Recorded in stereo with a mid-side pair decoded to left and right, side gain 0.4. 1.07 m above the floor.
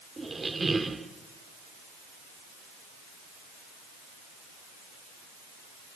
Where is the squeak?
25° right, 2.0 m.